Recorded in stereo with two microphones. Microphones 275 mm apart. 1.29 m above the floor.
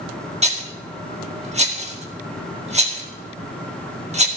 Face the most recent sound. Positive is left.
turn(degrees=-25)  # may be behind; listen again after turning